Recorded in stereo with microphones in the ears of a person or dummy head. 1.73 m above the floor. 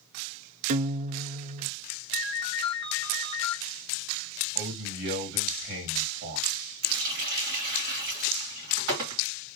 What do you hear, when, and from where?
0.7 s a guitar: 40° right (ahead or behind), 0.5 m
2.1 s a ringtone: 20° left (ahead or behind), 0.7 m
4.5 s a man speaking: 55° right (ahead or behind), 1.9 m
6.8 s a running tap: 50° right (ahead or behind), 2.0 m